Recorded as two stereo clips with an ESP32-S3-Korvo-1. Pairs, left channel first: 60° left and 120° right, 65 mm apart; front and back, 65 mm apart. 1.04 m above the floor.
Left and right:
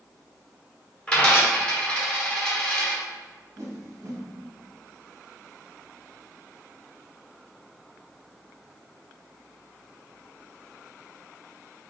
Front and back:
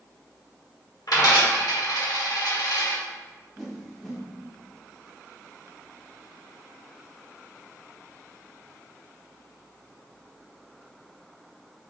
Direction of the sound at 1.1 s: 10° right.